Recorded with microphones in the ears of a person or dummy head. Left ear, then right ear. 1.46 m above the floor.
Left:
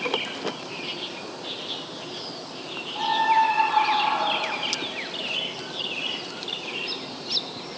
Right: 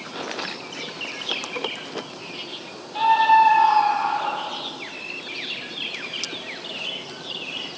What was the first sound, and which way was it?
A scream, 65° right (ahead or behind).